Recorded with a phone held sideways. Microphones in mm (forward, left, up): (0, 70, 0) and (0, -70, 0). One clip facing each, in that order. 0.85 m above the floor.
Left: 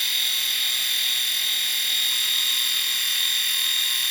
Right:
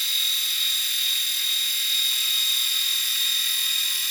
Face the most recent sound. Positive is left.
turn(degrees=70)  # may be behind; listen again after turning